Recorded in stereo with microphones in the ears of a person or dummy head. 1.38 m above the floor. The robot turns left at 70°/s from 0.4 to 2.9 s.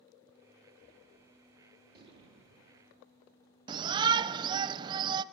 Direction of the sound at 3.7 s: 25° right (ahead or behind).